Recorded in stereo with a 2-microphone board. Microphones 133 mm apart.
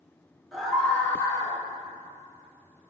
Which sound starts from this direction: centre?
A scream, at 0.5 s.